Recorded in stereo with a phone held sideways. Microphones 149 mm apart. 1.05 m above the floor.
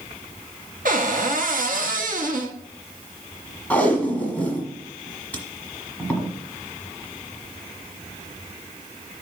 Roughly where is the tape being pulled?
Centre.